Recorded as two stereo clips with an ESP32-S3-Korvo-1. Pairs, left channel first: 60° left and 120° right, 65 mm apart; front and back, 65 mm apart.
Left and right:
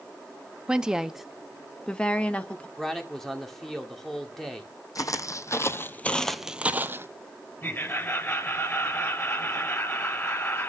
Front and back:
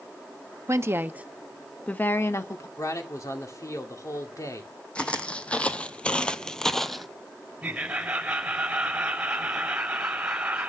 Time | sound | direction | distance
0.7 | a woman speaking | 165° left | 0.9 m
2.8 | a man speaking | 25° right | 2 m
5.0 | footsteps | 75° left | 1.3 m
7.6 | laughter | 105° left | 3.5 m